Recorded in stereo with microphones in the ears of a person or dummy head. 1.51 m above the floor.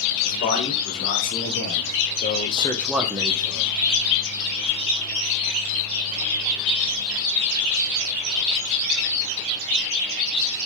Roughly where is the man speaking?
Left.